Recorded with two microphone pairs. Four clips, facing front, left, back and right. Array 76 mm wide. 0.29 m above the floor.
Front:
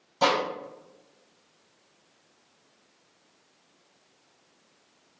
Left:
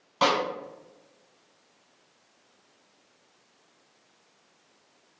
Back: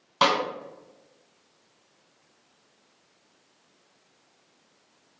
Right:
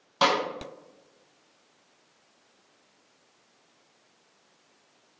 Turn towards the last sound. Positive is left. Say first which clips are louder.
# even, back 1 dB
turn(degrees=-175)